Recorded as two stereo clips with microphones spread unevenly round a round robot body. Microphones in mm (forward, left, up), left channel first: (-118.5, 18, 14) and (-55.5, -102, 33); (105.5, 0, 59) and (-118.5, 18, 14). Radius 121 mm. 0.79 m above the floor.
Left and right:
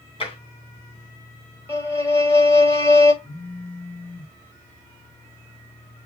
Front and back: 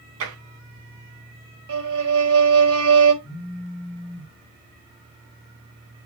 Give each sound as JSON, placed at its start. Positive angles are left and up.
{"t": 0.2, "sound": "tapping", "azimuth_deg": 165, "distance_m": 3.5}
{"t": 1.7, "sound": "a violin", "azimuth_deg": -175, "distance_m": 4.5}
{"t": 3.2, "sound": "a phone buzzing", "azimuth_deg": 65, "distance_m": 1.5}